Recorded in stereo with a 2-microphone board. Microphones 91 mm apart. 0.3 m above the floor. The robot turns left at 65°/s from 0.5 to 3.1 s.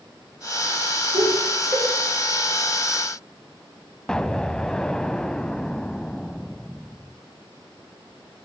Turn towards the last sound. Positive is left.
turn(degrees=10)  # may be behind; listen again after turning